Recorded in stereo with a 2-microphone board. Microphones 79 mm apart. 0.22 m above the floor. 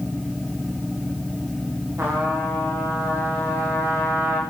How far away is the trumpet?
About 9.5 m.